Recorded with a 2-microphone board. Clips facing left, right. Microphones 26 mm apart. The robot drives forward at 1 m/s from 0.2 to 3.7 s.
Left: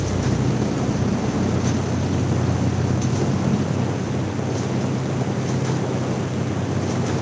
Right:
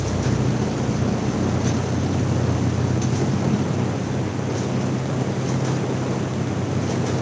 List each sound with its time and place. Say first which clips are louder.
0.0 s an engine running: even; 5° left (ahead or behind), 3.5 m